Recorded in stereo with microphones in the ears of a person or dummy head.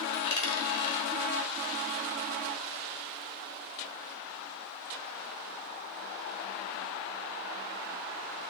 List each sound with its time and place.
0.1 s a dropped coin: 30° left (ahead or behind), 1.6 m